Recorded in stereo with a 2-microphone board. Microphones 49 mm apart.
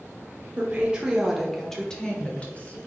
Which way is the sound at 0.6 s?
30° right (ahead or behind).